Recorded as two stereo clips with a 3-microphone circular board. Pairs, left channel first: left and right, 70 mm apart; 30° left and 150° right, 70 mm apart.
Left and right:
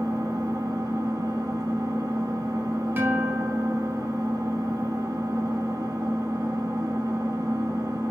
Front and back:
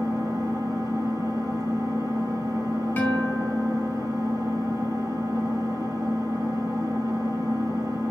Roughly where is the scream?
No scream in this recording.